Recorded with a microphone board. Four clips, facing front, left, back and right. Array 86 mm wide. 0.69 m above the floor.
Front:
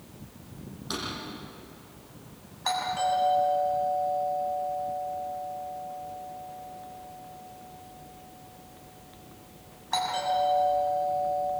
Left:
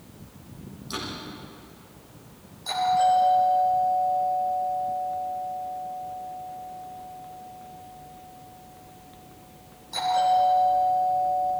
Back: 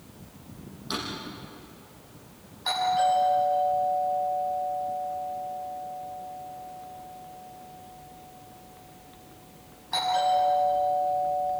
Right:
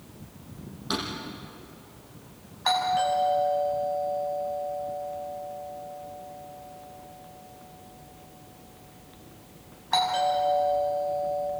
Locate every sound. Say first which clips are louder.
0.9 s a drawer: right 4 dB, back 2 dB; 85° right, 7 m
2.6 s a doorbell: left 3 dB, back 4 dB; 75° right, 7.5 m